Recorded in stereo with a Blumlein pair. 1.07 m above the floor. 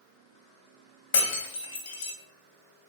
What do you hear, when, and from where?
1.1 s breaking glass: 60° left, 1.1 m